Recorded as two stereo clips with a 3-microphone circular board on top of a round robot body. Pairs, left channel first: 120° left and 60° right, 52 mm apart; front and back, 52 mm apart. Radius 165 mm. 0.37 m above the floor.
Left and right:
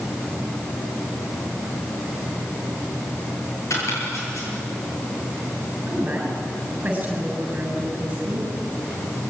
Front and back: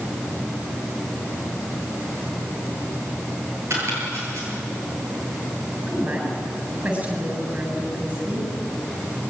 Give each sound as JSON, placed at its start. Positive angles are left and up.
{"t": 3.7, "sound": "chopping", "azimuth_deg": 145, "distance_m": 9.0}
{"t": 5.9, "sound": "a woman speaking", "azimuth_deg": -125, "distance_m": 7.5}